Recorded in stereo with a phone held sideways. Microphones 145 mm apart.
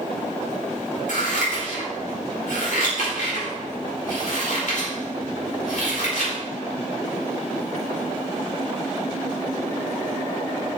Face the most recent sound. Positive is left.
turn(degrees=65)  # may be behind; listen again after turning